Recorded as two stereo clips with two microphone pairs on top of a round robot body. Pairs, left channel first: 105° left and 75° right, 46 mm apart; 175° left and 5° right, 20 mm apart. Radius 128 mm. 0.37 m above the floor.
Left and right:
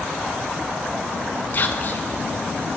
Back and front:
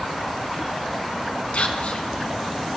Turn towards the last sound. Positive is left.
turn(degrees=155)